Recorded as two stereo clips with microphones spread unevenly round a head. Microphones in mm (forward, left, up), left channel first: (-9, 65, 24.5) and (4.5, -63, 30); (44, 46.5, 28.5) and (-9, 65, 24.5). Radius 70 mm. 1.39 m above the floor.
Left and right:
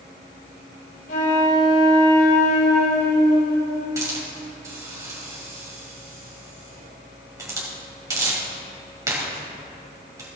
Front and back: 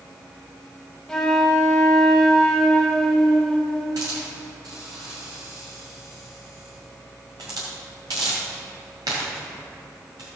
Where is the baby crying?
I don't hear a baby crying.